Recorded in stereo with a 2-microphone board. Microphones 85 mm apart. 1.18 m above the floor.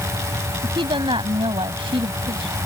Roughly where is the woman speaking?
Right.